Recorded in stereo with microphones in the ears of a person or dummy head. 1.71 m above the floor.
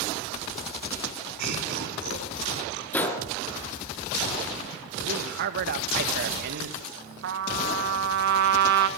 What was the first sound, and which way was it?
Laughter, 70° right (ahead or behind).